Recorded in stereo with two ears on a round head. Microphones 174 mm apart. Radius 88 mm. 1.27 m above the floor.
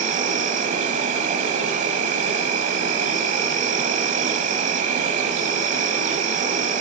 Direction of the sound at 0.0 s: 40° right (ahead or behind).